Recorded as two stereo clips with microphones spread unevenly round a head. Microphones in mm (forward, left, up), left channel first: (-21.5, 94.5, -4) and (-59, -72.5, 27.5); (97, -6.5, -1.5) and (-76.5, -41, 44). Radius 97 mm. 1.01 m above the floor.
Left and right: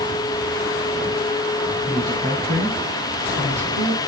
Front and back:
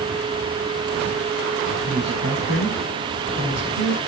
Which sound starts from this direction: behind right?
A man speaking, at 1.9 s.